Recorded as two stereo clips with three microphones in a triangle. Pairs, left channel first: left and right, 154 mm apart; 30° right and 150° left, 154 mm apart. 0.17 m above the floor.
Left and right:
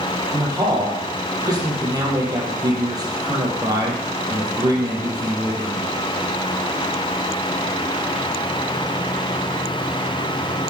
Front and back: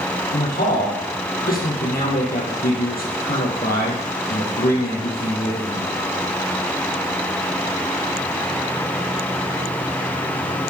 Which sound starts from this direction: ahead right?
A man speaking, at 0.3 s.